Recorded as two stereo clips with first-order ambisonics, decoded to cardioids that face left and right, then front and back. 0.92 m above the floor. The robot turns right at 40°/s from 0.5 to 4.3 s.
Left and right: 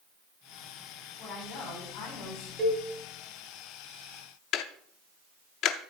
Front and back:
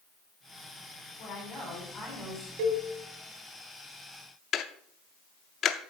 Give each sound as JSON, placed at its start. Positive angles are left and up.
{"t": 1.2, "sound": "a woman speaking", "azimuth_deg": 45, "distance_m": 5.5}
{"t": 2.6, "sound": "a cowbell", "azimuth_deg": -155, "distance_m": 1.4}
{"t": 4.5, "sound": "ticking", "azimuth_deg": 55, "distance_m": 0.6}